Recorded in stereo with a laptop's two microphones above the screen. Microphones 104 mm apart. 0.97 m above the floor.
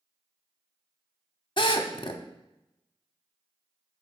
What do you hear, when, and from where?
1.6 s a drill: 50° left (ahead or behind), 0.7 m